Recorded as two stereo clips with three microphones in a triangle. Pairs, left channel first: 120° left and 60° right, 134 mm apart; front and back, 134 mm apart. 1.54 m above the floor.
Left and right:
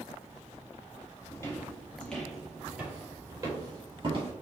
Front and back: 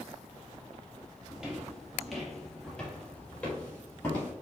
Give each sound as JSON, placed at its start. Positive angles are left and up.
{"t": 1.3, "sound": "footsteps", "azimuth_deg": 100, "distance_m": 1.6}